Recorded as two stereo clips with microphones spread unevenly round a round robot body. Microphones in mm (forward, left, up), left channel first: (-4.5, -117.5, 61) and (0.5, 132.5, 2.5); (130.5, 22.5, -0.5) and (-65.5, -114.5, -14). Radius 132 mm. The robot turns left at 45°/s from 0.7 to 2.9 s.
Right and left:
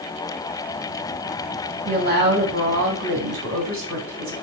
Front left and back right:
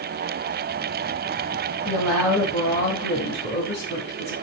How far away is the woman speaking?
About 3 m.